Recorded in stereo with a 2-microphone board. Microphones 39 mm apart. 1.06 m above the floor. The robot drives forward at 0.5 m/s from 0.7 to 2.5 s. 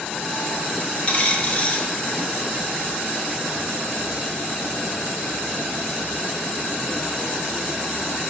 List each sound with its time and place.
1.1 s a dropped coin: 35° left (ahead or behind), 1.0 m